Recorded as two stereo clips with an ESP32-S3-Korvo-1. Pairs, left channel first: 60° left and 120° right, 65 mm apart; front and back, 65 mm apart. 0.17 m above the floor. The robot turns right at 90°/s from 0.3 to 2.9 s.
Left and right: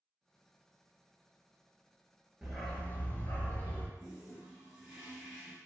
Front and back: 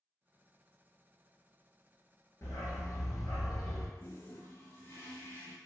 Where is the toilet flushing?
45° right, 0.9 m.